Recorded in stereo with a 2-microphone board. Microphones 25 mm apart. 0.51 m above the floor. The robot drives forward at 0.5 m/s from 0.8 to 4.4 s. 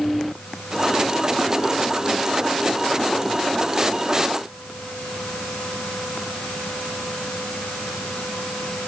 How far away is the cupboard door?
No cupboard door in this recording.